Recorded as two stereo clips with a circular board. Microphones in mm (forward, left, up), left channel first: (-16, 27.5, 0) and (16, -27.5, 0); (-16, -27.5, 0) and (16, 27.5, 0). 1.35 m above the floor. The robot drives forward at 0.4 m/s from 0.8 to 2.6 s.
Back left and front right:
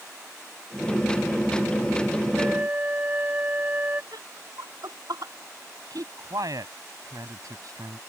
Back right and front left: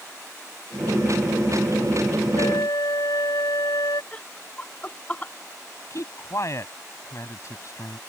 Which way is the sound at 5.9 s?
80° right.